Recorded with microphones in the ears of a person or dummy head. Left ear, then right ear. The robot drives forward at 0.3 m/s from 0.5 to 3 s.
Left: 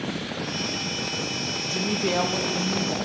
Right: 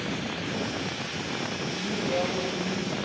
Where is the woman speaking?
75° left (ahead or behind), 0.5 m; by 3.0 s 45° left (ahead or behind), 0.7 m.